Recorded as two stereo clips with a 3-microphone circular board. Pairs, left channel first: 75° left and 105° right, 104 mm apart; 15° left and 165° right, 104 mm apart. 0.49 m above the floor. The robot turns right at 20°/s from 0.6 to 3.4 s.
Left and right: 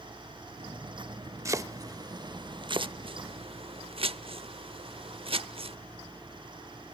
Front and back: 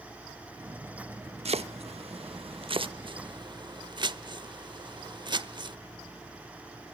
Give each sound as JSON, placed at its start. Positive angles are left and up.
{"t": 1.4, "sound": "chopping", "azimuth_deg": -165, "distance_m": 0.7}